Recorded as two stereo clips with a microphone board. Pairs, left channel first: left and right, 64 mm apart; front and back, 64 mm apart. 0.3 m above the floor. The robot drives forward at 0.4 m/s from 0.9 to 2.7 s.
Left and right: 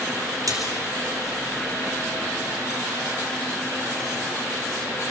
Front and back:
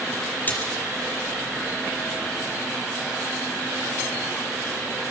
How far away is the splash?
About 3.5 m.